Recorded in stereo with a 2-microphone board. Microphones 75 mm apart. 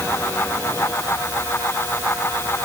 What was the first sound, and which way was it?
Only background noise.